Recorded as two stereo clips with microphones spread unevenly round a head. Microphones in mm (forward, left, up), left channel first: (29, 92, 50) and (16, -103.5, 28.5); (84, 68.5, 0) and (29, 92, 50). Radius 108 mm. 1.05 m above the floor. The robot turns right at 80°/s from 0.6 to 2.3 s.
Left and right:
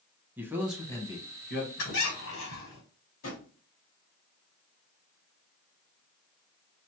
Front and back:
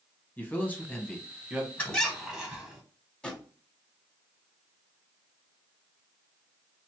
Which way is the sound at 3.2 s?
70° left.